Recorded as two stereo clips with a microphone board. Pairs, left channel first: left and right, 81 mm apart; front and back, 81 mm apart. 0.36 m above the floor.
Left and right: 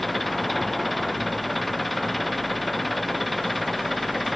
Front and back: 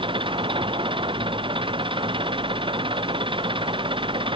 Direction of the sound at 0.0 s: Straight behind.